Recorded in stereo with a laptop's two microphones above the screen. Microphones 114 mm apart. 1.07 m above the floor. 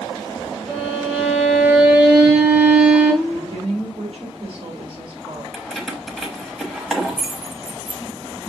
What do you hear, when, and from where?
0.7 s a violin: 10° right (ahead or behind), 2.0 m
3.2 s a woman speaking: 55° right (ahead or behind), 4.5 m
5.5 s keys jangling: centre (ahead or behind), 0.8 m